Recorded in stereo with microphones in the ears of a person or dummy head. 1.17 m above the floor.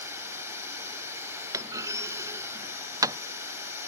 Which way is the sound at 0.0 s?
15° right (ahead or behind).